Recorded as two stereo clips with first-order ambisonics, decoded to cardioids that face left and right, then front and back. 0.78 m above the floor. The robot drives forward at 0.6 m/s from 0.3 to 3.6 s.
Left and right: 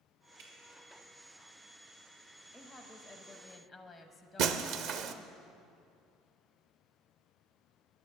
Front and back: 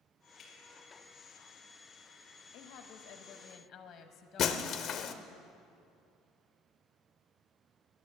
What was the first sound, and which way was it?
Dripping, 70° right.